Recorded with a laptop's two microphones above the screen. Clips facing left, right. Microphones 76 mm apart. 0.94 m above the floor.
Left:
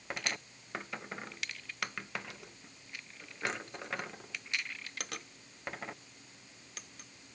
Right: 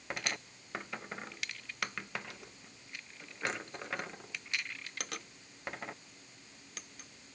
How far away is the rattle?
No rattle in this recording.